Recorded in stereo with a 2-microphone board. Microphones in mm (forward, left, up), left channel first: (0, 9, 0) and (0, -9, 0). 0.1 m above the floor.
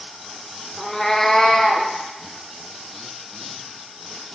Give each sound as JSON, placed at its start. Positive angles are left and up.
{"t": 0.8, "sound": "a cat meowing", "side_deg": 10, "distance_m": 0.8}